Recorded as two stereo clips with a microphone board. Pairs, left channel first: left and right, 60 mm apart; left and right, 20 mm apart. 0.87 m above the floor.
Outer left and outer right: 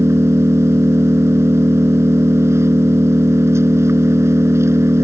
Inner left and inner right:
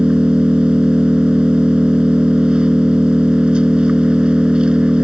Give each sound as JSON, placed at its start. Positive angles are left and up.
{"t": 0.0, "sound": "an engine running", "side_deg": -50}